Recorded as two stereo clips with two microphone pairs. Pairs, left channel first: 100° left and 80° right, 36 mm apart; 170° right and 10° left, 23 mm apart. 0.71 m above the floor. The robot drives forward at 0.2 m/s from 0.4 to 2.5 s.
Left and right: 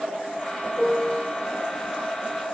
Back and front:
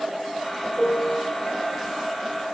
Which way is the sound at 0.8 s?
170° right.